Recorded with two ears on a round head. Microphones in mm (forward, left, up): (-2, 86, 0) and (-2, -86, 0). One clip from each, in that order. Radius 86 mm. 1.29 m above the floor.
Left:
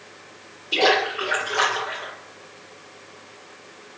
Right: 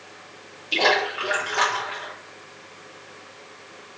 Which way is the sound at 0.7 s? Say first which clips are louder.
Left 1 dB; 55° right (ahead or behind).